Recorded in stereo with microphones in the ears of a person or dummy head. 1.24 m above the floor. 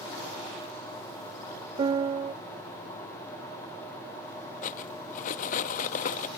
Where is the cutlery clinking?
40° left (ahead or behind).